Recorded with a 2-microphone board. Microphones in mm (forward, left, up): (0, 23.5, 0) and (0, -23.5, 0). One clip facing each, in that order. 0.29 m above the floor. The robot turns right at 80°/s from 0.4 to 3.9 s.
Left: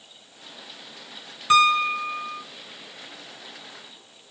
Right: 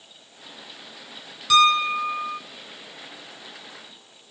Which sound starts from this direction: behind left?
A piano, at 1.5 s.